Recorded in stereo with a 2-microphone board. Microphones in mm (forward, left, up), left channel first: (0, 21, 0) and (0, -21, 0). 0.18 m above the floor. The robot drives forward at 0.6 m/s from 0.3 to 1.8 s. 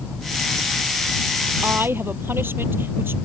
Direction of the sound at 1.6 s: 70° right (ahead or behind).